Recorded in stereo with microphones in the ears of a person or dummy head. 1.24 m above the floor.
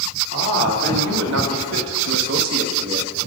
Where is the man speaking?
50° right (ahead or behind), 3 m; by 3.1 s 30° right (ahead or behind), 1.8 m.